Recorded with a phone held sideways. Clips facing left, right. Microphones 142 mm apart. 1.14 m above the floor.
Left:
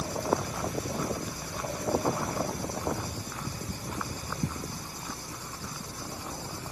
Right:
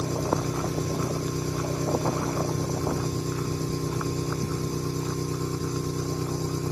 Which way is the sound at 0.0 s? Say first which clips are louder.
Right 3 dB; 90° right.